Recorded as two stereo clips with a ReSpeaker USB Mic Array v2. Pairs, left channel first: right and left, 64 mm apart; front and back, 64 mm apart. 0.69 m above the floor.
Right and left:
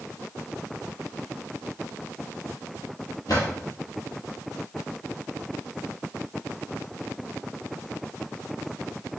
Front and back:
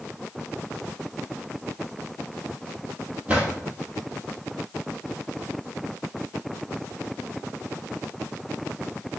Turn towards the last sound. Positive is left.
turn(degrees=-110)